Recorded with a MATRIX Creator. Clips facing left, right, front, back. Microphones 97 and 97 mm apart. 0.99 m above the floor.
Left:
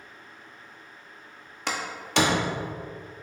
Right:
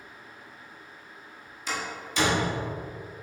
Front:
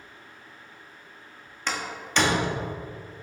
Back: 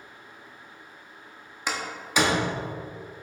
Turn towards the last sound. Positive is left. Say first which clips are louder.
# left 1 dB, even
turn(degrees=100)